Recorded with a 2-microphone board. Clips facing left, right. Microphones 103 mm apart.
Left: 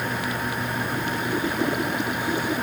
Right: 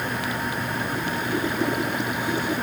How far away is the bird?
I don't hear a bird.